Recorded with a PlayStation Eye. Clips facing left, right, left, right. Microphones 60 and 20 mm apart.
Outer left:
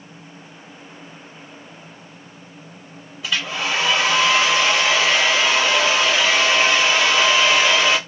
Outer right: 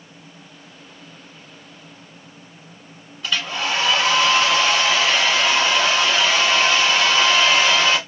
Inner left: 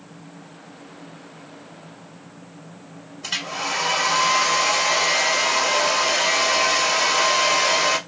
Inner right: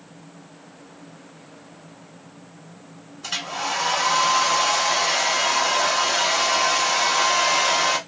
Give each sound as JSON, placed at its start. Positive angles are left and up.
{"t": 3.2, "sound": "a hair dryer", "side_deg": 5, "distance_m": 0.9}